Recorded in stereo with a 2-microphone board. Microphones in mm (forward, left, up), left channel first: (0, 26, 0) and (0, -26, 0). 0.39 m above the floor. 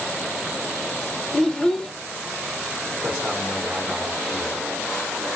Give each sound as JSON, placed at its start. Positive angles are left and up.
{"t": 1.3, "sound": "a child speaking", "side_deg": 10, "distance_m": 0.5}
{"t": 3.0, "sound": "a man speaking", "side_deg": -10, "distance_m": 1.5}